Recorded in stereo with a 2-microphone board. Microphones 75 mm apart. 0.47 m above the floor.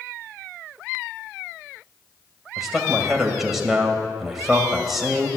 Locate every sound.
2.6 s a man speaking: 5° right (ahead or behind), 2 m